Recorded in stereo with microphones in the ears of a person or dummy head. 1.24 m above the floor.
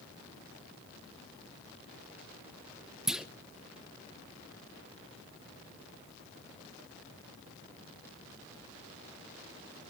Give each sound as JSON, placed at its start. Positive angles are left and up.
{"t": 3.1, "sound": "a clunk", "side_deg": -5, "distance_m": 0.6}